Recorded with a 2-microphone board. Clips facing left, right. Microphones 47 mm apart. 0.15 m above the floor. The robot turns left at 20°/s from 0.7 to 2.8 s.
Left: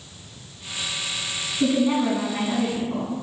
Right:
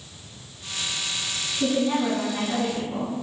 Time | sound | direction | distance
1.6 | a woman speaking | 30° left (ahead or behind) | 1.4 m